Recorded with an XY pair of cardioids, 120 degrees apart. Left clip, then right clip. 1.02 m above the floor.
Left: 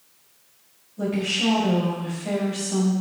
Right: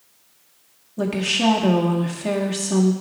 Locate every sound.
1.0 s a woman speaking: 65° right, 1.8 m